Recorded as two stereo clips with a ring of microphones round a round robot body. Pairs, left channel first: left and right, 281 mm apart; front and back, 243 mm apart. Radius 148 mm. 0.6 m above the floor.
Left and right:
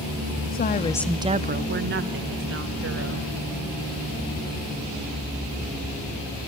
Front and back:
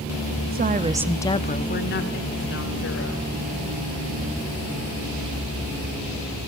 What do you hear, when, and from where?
0.5 s a woman speaking: 140° left, 0.9 m; by 3.3 s 45° right, 3 m